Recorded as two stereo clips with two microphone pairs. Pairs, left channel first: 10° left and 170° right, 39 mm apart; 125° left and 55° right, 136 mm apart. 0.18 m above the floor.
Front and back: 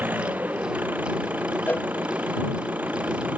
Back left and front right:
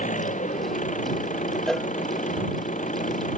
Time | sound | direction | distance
0.0 | an engine running | 150° left | ?
1.7 | a cowbell | 40° left | ?